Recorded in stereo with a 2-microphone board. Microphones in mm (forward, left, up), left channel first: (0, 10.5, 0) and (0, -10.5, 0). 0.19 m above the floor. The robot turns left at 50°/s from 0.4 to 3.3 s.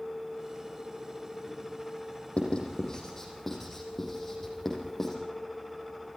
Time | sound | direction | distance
2.4 | writing | 55° left (ahead or behind) | 6 m